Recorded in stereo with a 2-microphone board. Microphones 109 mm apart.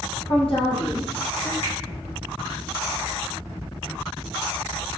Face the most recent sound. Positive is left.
turn(degrees=75)  # may be behind; listen again after turning